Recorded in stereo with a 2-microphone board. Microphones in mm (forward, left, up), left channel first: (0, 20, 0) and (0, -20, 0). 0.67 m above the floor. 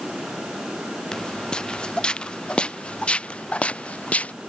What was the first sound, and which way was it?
Footsteps, 25° left (ahead or behind).